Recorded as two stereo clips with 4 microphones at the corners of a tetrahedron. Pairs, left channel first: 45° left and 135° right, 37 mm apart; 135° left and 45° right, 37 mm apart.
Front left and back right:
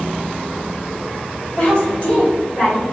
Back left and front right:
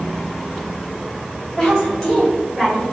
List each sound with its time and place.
1.6 s a woman speaking: 75° left, 1.9 m; by 2.9 s 50° left, 1.5 m